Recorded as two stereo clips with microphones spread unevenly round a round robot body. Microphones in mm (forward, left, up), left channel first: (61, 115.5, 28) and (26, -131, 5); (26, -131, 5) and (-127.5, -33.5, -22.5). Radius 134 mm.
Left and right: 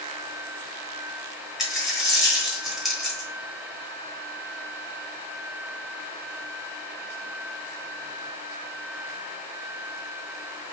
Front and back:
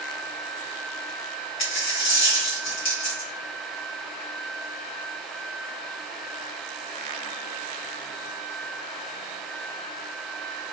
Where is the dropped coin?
10° right, 1.2 m.